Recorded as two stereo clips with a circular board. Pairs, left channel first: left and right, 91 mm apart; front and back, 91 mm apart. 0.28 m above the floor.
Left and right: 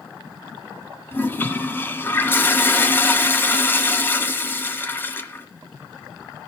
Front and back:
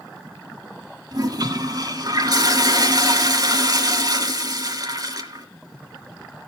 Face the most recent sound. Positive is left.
turn(degrees=150)